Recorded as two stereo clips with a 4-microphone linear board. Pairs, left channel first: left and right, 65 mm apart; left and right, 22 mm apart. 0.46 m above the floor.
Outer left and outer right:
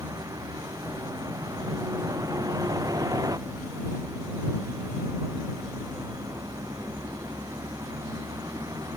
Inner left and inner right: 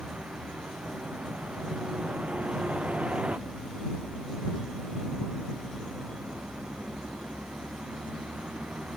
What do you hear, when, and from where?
0.0 s a vehicle: 65° right (ahead or behind)